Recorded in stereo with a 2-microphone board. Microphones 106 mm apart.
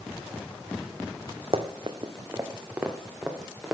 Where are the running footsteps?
65° right (ahead or behind), 1.1 m; by 3.7 s centre (ahead or behind), 2.5 m.